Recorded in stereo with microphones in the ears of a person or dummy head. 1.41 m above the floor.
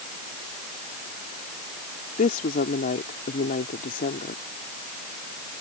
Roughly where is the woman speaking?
Left.